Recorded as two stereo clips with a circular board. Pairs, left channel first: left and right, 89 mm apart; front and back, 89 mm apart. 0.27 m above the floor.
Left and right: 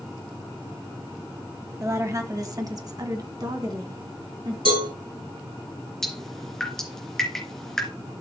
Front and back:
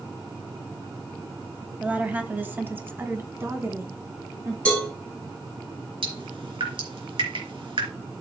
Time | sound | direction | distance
1.8 | a woman speaking | 115° right | 1.2 m
4.7 | a cowbell | 80° right | 7 m
6.0 | dripping | 175° left | 3 m